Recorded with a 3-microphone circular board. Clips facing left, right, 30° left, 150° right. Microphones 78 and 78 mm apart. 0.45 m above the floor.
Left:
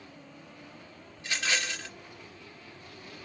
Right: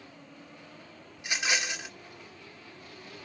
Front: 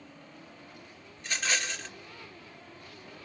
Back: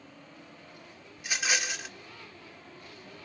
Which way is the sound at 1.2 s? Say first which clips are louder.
Right 1 dB, back 1 dB; 95° right.